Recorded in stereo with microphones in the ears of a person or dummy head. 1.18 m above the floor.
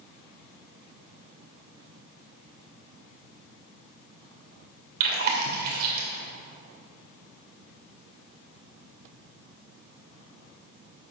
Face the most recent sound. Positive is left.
turn(degrees=-55)  # may be behind; listen again after turning